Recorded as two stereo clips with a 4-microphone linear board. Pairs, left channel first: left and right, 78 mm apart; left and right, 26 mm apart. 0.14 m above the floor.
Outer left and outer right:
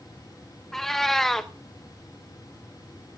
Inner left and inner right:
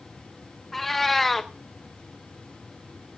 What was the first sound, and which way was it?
A cat meowing, 5° left (ahead or behind).